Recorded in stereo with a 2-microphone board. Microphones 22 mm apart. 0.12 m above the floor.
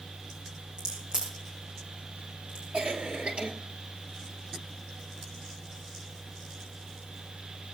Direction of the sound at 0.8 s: 30° right (ahead or behind).